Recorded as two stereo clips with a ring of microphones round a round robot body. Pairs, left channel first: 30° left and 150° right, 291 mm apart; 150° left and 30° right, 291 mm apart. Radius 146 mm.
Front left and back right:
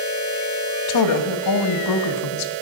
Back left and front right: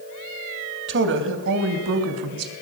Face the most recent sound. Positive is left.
turn(degrees=5)